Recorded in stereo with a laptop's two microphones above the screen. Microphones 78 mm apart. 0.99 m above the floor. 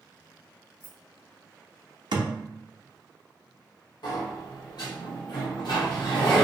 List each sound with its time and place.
0.8 s keys jangling: 5° left (ahead or behind), 1.5 m
2.1 s a thud: 65° right (ahead or behind), 0.5 m
4.0 s a sliding door: 65° left (ahead or behind), 0.9 m